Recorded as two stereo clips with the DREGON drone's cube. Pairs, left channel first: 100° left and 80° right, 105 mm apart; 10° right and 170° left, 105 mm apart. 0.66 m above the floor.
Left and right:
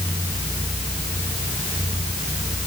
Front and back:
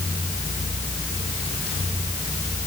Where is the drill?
I don't hear a drill.